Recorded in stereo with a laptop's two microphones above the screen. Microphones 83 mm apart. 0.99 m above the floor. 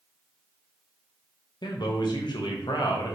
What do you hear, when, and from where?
1.6 s a man speaking: 60° left (ahead or behind), 0.7 m